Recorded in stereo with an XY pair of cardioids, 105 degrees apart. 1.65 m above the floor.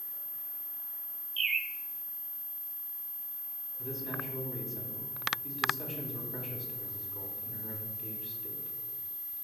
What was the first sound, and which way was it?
A bird, 45° right.